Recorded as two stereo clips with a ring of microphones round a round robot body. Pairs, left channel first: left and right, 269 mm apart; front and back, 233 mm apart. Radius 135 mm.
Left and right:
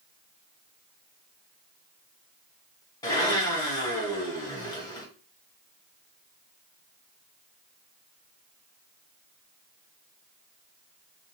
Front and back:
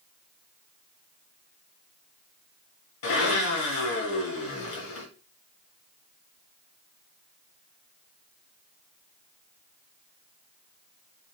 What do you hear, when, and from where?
3.0 s a blender: 15° left, 1.1 m